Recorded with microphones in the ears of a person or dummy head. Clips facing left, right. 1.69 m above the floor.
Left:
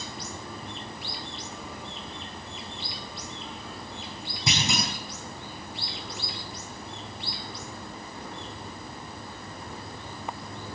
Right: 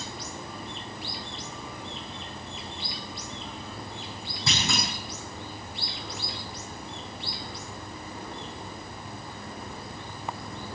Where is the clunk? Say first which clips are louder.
Left 2 dB; 15° left (ahead or behind), 6.5 m.